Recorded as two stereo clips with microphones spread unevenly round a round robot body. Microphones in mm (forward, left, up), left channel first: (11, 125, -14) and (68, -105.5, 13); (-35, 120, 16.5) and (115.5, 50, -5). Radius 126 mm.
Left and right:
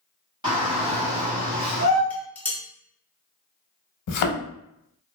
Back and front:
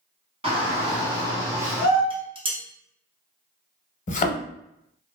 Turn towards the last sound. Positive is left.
turn(degrees=120)